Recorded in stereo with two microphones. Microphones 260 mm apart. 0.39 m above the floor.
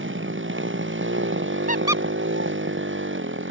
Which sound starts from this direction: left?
A squeak, at 1.7 s.